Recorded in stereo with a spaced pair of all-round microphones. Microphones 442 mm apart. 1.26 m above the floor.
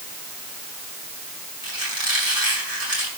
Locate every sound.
1.6 s a squeak: 50° right (ahead or behind), 7 m